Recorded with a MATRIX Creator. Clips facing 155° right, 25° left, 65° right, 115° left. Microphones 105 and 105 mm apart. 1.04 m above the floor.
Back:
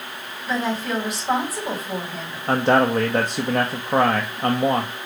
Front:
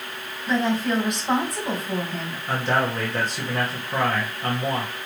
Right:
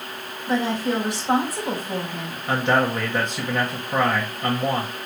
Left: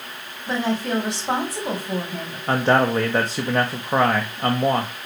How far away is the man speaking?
About 1.0 m.